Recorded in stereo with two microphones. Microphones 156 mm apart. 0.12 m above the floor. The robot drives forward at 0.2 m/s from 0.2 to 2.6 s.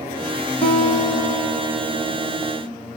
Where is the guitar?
45° left (ahead or behind), 1.2 m; by 2.6 s 35° left (ahead or behind), 1.5 m.